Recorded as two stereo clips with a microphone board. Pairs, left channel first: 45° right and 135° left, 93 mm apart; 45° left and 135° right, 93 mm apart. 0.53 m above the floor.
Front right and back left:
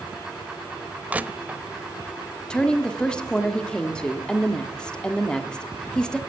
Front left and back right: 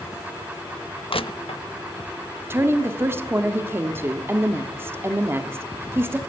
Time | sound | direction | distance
1.1 | crushing | 65° left | 0.6 m
2.5 | a woman speaking | 110° right | 1.2 m